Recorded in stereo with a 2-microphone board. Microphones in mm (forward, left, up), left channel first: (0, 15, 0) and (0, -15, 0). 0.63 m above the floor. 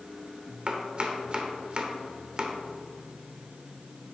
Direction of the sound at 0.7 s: 35° right (ahead or behind).